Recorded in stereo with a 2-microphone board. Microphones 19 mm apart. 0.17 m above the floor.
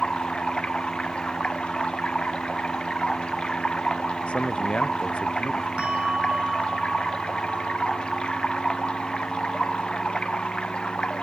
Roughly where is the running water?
Left.